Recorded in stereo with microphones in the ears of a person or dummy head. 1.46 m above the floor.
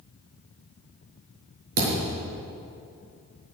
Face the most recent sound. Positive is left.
turn(degrees=-75)  # may be behind; listen again after turning